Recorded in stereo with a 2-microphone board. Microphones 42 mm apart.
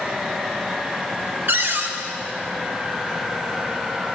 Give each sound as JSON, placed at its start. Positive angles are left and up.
{"t": 1.5, "sound": "a cupboard door", "side_deg": -60, "distance_m": 1.0}